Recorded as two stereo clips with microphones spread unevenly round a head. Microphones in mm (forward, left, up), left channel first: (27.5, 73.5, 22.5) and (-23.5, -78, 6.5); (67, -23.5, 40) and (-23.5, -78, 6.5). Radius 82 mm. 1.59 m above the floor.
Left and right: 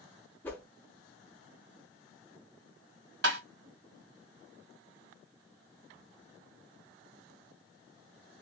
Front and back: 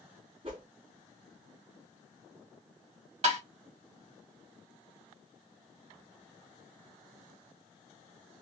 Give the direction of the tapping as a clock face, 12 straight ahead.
4 o'clock.